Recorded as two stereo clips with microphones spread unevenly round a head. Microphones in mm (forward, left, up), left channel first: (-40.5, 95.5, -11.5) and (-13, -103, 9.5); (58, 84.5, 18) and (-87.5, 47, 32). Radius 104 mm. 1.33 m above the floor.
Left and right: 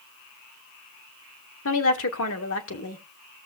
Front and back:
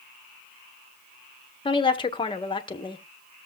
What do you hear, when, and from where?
1.6 s a woman speaking: 70° left, 1.8 m